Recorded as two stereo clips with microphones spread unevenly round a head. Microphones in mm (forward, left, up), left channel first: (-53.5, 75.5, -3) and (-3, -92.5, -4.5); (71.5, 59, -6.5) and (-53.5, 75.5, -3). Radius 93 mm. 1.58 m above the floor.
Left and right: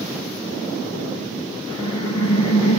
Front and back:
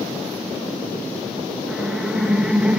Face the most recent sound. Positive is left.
turn(degrees=90)